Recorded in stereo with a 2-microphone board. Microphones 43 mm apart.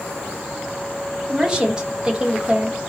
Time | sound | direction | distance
1.3 | a woman speaking | 20° right (ahead or behind) | 1.2 m